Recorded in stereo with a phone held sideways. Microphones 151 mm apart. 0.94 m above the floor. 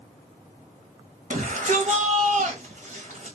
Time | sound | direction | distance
1.3 | a shout | 55° right (ahead or behind) | 1.3 m